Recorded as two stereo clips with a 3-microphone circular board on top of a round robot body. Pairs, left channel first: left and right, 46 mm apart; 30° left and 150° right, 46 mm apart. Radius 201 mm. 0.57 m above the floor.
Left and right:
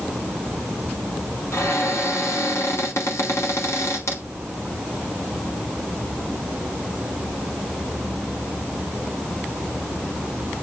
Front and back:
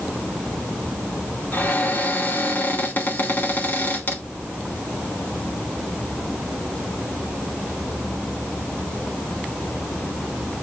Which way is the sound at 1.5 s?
75° left.